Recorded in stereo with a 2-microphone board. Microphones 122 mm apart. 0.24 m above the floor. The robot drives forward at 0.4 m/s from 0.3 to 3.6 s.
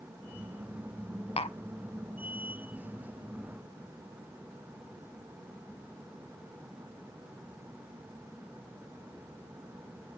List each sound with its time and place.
1.4 s tapping: 50° left (ahead or behind), 0.6 m